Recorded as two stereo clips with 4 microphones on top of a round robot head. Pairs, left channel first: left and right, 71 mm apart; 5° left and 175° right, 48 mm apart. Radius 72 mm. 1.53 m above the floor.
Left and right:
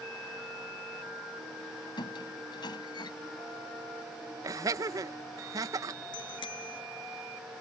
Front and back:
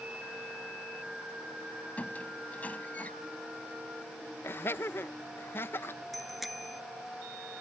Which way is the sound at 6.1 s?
95° left.